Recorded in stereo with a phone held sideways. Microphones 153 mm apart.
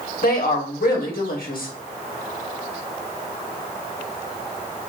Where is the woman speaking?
75° left (ahead or behind), 1.1 m.